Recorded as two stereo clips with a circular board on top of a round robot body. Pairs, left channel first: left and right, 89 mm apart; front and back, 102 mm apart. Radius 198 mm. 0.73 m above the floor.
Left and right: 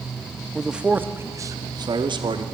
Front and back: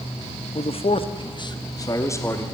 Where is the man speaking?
Straight ahead, 1.7 m; by 2.4 s 65° right, 2.5 m.